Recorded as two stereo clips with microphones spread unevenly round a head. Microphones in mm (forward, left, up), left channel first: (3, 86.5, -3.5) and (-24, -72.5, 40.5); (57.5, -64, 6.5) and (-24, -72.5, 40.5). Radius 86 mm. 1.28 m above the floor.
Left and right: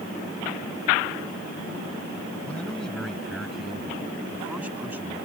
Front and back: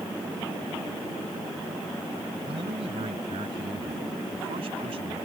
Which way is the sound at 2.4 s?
165° left.